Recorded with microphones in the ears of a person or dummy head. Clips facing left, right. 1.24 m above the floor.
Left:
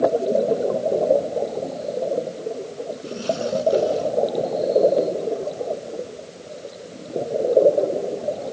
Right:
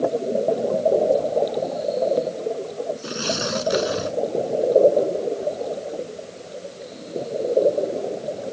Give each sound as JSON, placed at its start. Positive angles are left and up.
{"t": 3.0, "sound": "tearing paper", "side_deg": -75}